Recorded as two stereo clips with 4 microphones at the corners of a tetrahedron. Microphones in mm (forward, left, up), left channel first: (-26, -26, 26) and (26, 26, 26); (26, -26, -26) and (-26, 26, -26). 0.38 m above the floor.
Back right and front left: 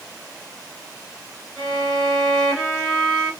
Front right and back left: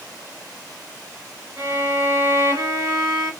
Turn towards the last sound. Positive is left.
turn(degrees=130)